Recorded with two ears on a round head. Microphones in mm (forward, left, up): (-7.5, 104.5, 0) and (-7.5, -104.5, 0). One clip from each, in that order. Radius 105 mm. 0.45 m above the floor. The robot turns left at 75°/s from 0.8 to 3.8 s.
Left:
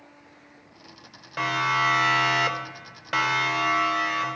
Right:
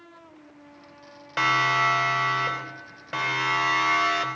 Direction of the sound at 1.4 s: 35° right (ahead or behind).